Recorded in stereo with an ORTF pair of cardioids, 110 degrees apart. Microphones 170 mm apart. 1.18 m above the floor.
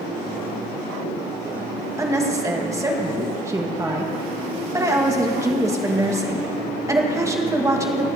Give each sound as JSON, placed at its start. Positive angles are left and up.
{"t": 2.0, "sound": "a woman speaking", "azimuth_deg": -20, "distance_m": 1.5}